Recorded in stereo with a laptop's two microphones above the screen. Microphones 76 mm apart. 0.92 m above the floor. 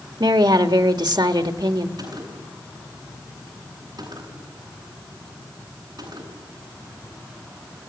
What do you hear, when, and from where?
0.2 s a woman speaking: 70° right (ahead or behind), 1.8 m
2.0 s a gunshot: 60° right (ahead or behind), 8.5 m